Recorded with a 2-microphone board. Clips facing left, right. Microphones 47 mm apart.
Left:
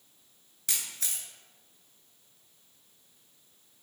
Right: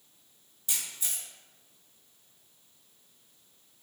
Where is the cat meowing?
I don't hear a cat meowing.